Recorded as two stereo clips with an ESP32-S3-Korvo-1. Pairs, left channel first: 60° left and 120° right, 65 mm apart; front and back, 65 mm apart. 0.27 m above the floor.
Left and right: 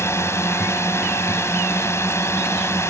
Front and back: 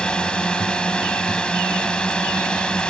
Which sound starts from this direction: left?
A drone, at 0.0 s.